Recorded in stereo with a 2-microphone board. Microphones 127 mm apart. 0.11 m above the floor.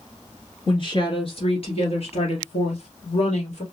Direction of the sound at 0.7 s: 40° left (ahead or behind).